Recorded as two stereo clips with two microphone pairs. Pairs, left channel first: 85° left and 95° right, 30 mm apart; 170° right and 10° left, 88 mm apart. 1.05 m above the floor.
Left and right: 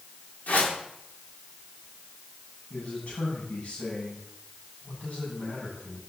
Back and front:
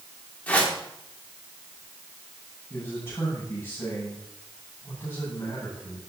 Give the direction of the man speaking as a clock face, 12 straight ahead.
8 o'clock.